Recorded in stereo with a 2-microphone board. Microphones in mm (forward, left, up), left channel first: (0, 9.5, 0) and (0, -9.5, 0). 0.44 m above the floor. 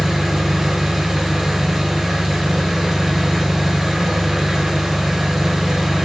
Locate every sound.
0.0 s an engine running: 25° right (ahead or behind), 1.3 m